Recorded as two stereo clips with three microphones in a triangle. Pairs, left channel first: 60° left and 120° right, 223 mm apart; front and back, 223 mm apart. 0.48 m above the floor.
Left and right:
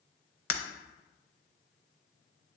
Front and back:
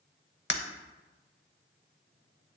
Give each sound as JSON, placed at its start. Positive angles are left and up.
{"t": 0.5, "sound": "breaking glass", "azimuth_deg": 40, "distance_m": 0.7}